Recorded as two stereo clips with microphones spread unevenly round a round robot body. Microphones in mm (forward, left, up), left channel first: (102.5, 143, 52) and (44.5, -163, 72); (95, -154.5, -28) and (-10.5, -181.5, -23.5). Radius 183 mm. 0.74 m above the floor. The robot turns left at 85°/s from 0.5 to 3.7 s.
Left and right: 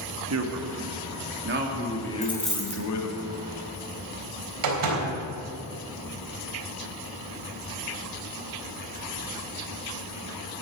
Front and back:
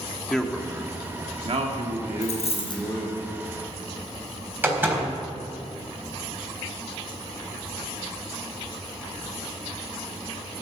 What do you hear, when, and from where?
0.3 s a man speaking: 70° right, 2 m; by 3.2 s 65° left, 2 m
2.2 s a dropped coin: 10° left, 3 m; by 2.8 s 40° right, 3 m
4.6 s a door slam: 95° right, 4 m